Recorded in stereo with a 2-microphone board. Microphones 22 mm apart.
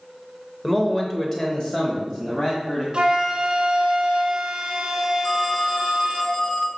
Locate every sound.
0.6 s a man speaking: 5° left (ahead or behind), 1.0 m; by 2.8 s 40° left (ahead or behind), 2 m
2.9 s a flute: 45° right (ahead or behind), 1.5 m
5.2 s a phone ringing: 50° left (ahead or behind), 0.9 m